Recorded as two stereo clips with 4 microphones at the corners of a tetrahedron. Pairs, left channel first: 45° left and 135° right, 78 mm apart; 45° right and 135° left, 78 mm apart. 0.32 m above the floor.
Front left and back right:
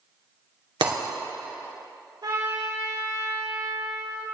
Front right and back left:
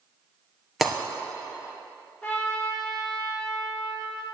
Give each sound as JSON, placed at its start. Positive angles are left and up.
{"t": 0.8, "sound": "breaking glass", "azimuth_deg": -135, "distance_m": 2.5}
{"t": 2.2, "sound": "a trumpet", "azimuth_deg": -120, "distance_m": 5.0}